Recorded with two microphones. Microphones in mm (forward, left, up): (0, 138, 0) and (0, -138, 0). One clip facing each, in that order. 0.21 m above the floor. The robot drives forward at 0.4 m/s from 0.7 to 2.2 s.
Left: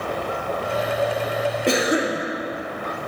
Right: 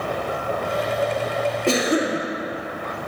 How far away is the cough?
About 2.5 m.